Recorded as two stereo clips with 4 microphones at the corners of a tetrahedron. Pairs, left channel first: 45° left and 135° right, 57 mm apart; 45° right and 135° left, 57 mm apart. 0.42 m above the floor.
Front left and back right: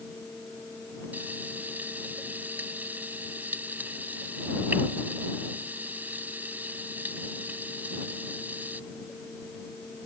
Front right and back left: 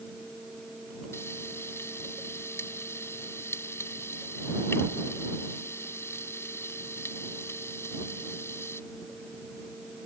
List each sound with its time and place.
1.1 s frying: 80° right